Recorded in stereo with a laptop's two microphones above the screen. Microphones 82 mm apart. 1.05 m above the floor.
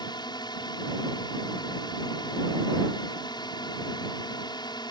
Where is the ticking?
No ticking in this recording.